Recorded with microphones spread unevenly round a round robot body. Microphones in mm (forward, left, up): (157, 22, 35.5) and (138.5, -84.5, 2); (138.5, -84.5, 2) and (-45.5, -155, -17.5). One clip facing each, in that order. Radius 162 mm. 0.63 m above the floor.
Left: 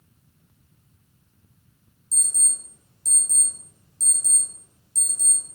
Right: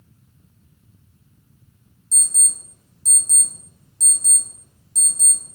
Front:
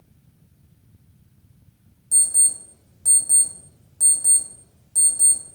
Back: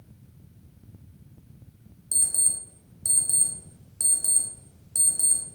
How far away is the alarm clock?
About 0.8 m.